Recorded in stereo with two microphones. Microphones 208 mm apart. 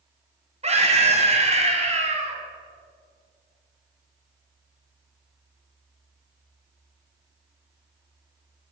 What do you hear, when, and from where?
0.6 s a scream: 35° right (ahead or behind), 1.5 m